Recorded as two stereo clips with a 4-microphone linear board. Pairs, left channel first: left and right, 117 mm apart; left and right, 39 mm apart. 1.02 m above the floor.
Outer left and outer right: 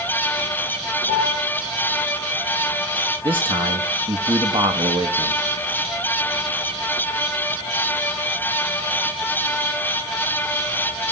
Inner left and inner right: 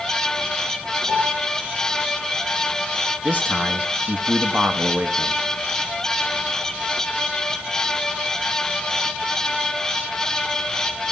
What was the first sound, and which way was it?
A piano, 80° right.